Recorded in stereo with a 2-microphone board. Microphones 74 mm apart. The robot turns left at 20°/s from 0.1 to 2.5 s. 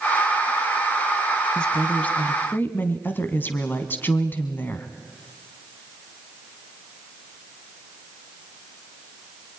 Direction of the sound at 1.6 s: 10° left (ahead or behind).